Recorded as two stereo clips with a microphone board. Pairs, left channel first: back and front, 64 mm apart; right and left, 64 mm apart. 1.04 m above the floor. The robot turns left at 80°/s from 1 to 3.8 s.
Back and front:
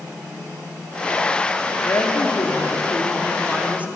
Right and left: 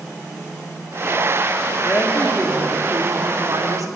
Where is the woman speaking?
135° right, 1.9 m; by 3.9 s 65° left, 1.9 m.